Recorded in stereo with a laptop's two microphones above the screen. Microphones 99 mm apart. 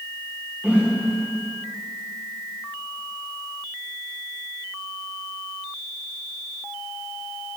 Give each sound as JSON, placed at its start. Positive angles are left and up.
{"t": 0.6, "sound": "a whoosh", "side_deg": -15, "distance_m": 1.8}